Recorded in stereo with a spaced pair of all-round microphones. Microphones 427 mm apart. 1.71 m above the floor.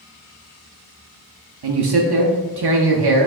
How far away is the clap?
No clap in this recording.